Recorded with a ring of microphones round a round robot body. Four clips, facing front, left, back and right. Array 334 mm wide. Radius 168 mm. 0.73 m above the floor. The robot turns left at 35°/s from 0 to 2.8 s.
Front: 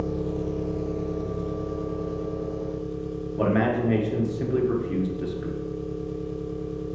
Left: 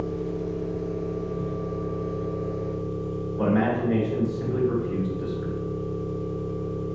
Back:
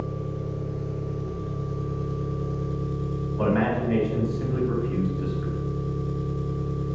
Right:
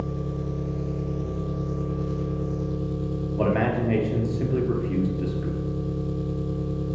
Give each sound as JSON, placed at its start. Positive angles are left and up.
{"t": 0.0, "sound": "an engine running", "azimuth_deg": -15, "distance_m": 0.8}
{"t": 3.4, "sound": "a man speaking", "azimuth_deg": -50, "distance_m": 1.3}